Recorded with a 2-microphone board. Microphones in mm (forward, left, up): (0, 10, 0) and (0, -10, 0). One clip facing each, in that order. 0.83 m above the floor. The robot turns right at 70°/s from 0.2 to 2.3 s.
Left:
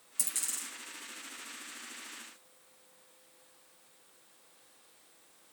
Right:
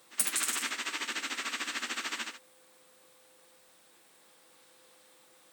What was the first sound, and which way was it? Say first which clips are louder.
A dropped coin: right 5 dB; 35° right (ahead or behind).